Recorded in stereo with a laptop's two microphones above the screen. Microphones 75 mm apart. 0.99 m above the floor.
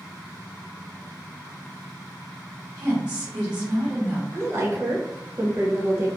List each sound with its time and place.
2.8 s a woman speaking: 70° right (ahead or behind), 1.8 m
4.3 s a woman speaking: 35° right (ahead or behind), 1.0 m